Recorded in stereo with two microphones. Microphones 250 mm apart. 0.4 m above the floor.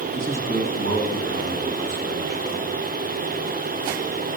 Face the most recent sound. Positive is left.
turn(degrees=-65)  # may be behind; listen again after turning